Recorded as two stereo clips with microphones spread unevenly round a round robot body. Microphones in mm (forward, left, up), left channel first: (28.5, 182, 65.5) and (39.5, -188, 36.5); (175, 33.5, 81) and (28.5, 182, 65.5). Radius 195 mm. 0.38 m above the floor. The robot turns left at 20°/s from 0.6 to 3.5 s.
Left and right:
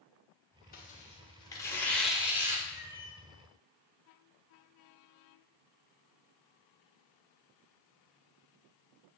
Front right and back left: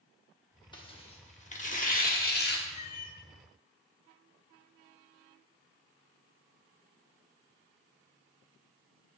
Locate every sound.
0.7 s tearing paper: 25° left, 1.3 m; by 2.6 s 10° right, 1.3 m
2.7 s a cat meowing: 20° left, 0.7 m; by 3.2 s 10° left, 0.7 m